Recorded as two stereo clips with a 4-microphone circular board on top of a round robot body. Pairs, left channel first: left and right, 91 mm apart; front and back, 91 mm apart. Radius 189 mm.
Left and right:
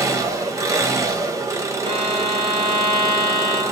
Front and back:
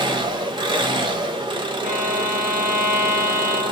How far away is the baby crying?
I don't hear a baby crying.